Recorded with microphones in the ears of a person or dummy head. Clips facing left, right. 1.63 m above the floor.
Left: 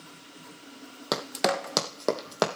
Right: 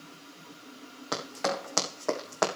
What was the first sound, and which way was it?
Running footsteps, 60° left (ahead or behind).